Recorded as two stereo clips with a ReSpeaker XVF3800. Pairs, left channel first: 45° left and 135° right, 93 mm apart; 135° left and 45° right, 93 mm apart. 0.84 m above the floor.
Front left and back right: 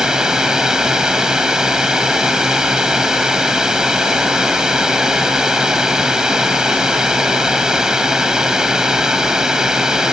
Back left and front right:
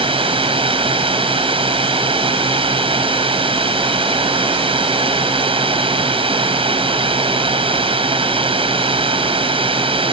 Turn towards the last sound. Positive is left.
turn(degrees=-55)